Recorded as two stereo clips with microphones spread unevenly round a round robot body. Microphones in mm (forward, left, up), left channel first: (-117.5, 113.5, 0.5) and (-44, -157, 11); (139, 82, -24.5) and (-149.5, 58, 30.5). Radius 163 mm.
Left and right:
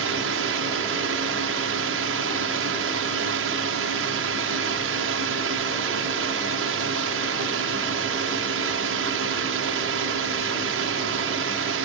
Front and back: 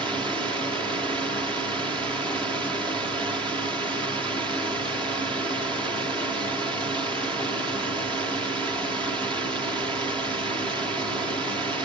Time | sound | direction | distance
0.0 | a drone | 90° right | ?